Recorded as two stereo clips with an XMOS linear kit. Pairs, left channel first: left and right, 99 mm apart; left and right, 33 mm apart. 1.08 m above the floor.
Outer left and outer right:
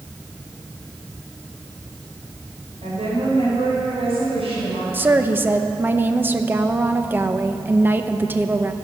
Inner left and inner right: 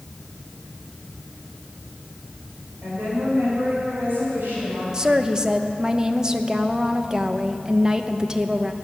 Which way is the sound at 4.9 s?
20° right (ahead or behind).